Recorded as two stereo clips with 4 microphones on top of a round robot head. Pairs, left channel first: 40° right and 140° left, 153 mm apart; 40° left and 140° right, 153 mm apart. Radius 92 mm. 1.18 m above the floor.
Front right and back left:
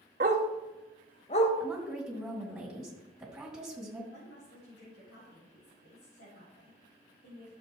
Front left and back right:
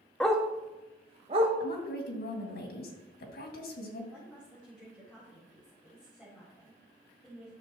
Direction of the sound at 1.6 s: 55° left.